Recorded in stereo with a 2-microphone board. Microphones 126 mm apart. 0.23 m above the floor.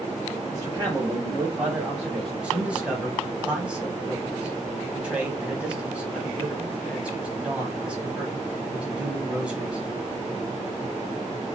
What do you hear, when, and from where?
0.5 s a man speaking: 30° right (ahead or behind), 1.3 m; by 2.3 s centre (ahead or behind), 1.3 m
2.4 s a man speaking: 10° right (ahead or behind), 1.1 m